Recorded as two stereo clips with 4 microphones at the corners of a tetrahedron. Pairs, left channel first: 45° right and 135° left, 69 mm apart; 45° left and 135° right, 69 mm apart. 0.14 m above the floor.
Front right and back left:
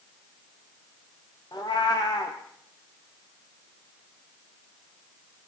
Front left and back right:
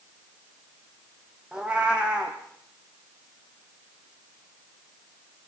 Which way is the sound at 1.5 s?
60° right.